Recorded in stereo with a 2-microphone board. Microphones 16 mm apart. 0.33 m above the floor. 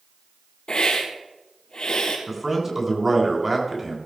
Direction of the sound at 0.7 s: 65° left (ahead or behind).